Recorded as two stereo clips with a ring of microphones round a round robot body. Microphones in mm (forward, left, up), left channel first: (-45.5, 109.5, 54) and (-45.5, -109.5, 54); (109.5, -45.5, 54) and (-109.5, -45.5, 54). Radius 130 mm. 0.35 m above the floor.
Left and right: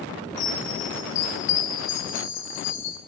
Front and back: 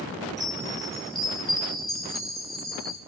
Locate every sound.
0.4 s a chime: 90° left, 2 m